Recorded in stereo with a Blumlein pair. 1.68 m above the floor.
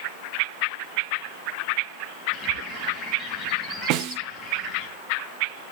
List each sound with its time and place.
2.3 s a bird: 25° left, 2.5 m
3.9 s a snare drum: 40° right, 0.7 m